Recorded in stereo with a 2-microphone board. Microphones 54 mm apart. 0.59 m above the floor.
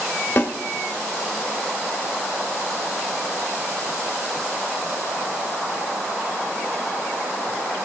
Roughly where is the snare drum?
Left.